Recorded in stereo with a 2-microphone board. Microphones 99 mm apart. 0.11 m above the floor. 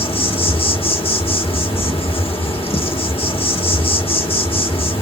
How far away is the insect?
About 1.2 m.